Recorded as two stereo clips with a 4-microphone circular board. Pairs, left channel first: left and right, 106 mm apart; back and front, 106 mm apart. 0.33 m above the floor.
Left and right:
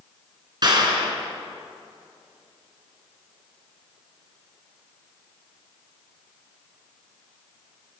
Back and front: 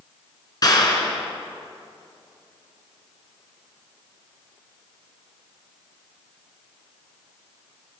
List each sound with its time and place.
0.6 s a clap: 130° right, 4 m